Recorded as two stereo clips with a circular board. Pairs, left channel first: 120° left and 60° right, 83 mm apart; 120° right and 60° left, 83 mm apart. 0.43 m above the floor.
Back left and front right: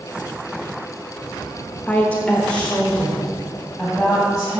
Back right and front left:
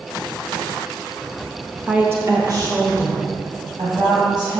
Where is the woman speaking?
105° left, 0.8 m; by 4.6 s 35° left, 3 m.